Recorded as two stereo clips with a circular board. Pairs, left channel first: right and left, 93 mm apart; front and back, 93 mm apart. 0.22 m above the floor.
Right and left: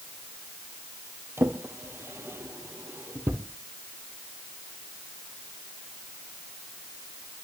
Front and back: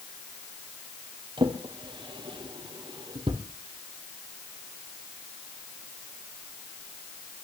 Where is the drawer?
155° left, 1.9 m.